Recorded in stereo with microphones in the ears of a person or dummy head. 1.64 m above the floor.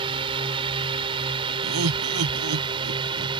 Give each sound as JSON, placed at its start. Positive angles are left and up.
{"t": 0.0, "sound": "a drone", "side_deg": -30}
{"t": 1.6, "sound": "laughter", "side_deg": -90}